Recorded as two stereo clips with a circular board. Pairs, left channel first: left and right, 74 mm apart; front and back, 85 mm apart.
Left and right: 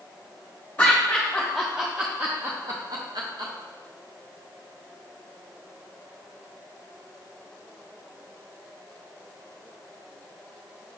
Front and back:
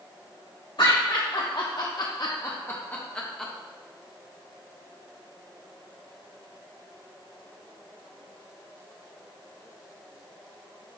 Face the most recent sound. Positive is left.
turn(degrees=-85)